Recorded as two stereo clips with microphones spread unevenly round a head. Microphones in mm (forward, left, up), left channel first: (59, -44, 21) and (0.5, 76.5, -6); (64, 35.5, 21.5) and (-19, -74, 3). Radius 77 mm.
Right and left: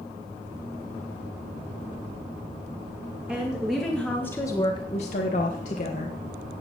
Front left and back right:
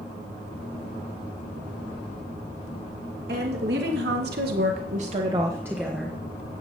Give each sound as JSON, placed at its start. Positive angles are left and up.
{"t": 3.3, "sound": "a woman speaking", "azimuth_deg": -160, "distance_m": 2.5}